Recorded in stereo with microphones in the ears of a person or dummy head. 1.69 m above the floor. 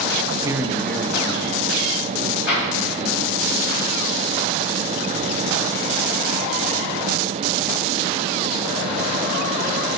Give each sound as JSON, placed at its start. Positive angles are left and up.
{"t": 0.3, "sound": "a man speaking", "side_deg": -35, "distance_m": 0.5}
{"t": 2.5, "sound": "an explosion", "side_deg": 60, "distance_m": 3.5}